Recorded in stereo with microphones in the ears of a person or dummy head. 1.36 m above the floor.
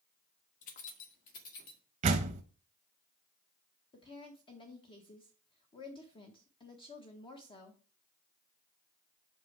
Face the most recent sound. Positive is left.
turn(degrees=30)  # may be behind; listen again after turning